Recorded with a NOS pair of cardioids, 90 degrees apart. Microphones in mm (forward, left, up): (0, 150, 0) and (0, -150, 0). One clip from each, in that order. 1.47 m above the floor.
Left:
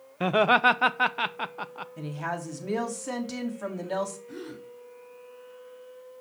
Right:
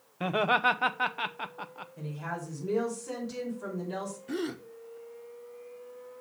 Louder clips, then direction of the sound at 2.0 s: Left 5 dB; 65° left.